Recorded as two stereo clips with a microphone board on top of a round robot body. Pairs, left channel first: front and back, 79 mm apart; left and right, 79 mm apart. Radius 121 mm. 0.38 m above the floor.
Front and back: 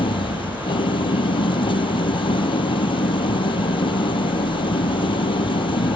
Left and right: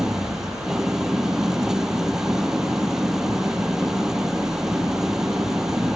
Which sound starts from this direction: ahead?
An engine running, at 0.0 s.